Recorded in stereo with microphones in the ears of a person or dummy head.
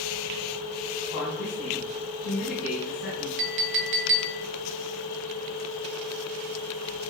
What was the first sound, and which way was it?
A woman speaking, 55° left (ahead or behind).